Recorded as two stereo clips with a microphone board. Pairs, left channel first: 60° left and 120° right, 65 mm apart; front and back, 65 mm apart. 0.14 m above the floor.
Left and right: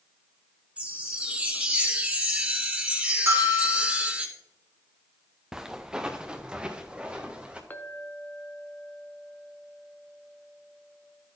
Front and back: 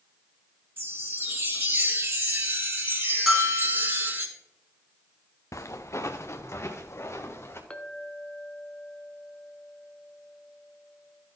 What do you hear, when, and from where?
0.8 s a chime: 175° right, 1.5 m
3.3 s a bell: 100° right, 2.5 m
5.5 s footsteps: 40° right, 0.9 m; by 7.6 s 50° right, 2 m
7.7 s a clink: 55° left, 0.8 m